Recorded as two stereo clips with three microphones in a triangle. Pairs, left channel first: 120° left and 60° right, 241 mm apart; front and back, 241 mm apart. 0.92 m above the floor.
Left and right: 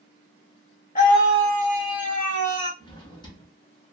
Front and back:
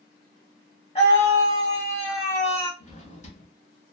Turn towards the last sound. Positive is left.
turn(degrees=50)